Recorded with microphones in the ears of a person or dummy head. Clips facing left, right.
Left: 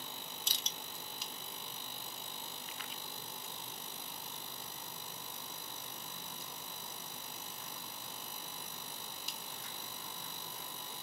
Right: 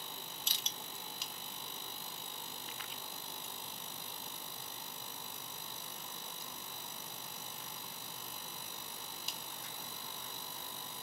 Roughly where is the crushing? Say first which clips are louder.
Left 1 dB; left.